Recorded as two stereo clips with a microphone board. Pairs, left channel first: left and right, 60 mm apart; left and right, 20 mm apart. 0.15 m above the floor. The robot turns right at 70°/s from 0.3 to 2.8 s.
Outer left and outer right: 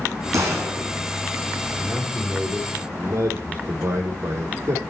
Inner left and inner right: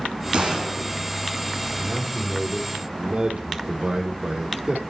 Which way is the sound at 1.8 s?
165° left.